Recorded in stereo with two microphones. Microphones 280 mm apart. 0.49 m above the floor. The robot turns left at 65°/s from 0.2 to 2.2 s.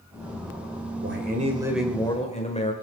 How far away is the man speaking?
About 1.8 m.